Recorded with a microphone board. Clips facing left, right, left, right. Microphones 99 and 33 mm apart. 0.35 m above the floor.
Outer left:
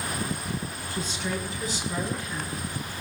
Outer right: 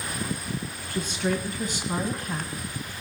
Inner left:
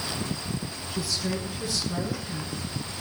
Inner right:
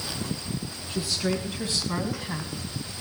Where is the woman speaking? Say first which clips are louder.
Outer right 5 dB, inner right 3 dB; 65° right (ahead or behind), 4 m; by 3.0 s 55° right (ahead or behind), 2 m.